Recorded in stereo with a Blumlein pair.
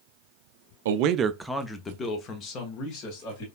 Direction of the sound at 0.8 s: 60° right.